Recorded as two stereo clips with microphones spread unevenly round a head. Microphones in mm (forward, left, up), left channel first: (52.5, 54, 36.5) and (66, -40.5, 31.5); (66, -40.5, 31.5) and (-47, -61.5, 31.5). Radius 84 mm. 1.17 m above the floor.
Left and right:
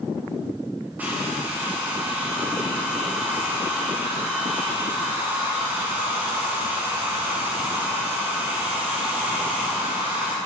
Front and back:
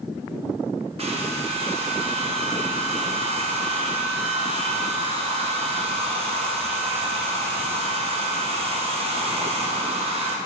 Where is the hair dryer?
155° right, 1.2 m.